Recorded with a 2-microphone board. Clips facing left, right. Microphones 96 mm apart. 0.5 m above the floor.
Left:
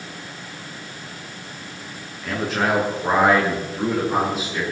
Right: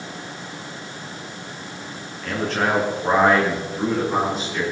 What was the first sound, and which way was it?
A man speaking, 5° left (ahead or behind).